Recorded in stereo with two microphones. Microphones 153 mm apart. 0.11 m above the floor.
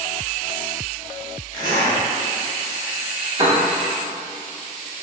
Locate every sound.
1.5 s a zipper: 20° left (ahead or behind), 2.0 m
3.4 s a piano: 35° right (ahead or behind), 0.8 m